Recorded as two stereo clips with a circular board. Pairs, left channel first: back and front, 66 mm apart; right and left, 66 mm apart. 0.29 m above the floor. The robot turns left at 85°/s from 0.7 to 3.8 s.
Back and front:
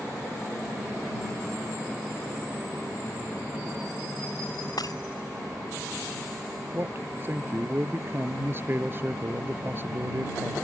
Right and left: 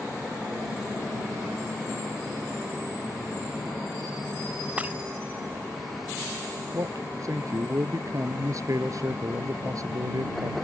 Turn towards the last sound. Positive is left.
turn(degrees=55)